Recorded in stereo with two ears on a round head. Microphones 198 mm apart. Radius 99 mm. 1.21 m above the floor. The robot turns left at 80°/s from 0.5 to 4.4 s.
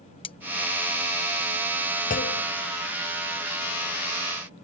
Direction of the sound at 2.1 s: 35° left (ahead or behind).